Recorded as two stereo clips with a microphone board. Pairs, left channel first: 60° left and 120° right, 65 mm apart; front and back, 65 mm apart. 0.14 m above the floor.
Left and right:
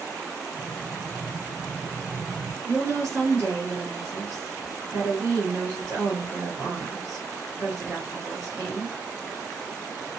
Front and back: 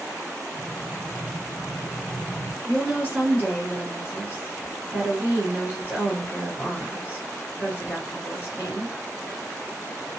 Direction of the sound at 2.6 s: 120° right.